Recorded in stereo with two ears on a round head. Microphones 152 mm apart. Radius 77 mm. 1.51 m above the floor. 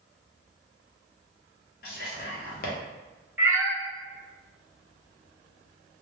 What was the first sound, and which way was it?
Whispering, 55° left (ahead or behind).